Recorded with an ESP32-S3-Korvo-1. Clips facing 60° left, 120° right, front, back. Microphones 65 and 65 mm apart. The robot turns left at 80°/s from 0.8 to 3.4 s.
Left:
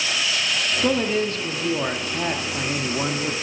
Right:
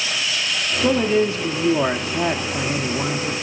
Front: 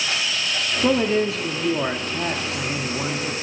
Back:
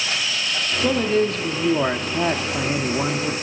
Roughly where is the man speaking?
Ahead right.